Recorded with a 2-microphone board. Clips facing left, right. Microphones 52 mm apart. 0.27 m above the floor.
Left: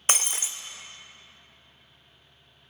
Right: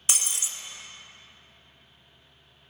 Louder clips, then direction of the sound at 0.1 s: Left 4 dB; 40° left (ahead or behind).